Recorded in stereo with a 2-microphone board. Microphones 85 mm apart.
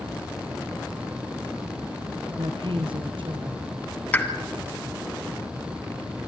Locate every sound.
2.3 s a woman speaking: 70° right (ahead or behind), 3.5 m
4.1 s a pop: 15° left (ahead or behind), 1.7 m